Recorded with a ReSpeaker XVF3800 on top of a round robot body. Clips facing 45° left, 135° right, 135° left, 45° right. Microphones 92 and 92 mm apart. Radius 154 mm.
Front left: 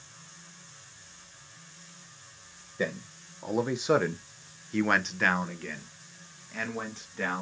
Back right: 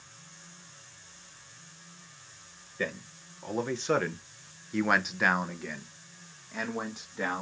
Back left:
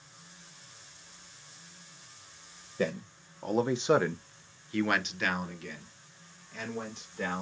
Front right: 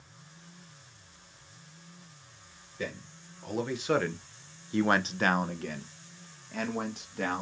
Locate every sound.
2.8 s a man speaking: 115° left, 1.0 m; by 7.4 s 60° right, 1.8 m